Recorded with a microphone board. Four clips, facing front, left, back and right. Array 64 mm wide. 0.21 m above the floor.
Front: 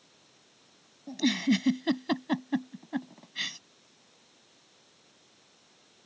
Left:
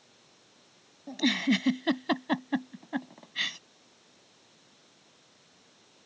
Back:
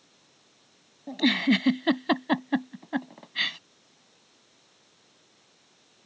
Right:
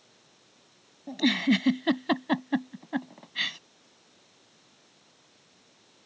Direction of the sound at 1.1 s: 170° right.